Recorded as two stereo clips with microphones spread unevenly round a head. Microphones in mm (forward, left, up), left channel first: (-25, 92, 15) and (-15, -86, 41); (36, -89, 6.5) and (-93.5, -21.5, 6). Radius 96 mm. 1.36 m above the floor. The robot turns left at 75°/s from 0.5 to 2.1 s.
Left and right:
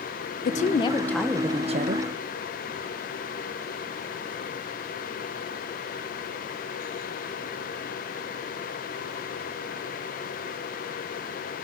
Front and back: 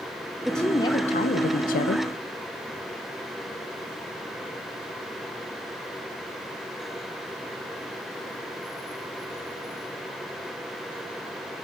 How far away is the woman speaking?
About 0.6 m.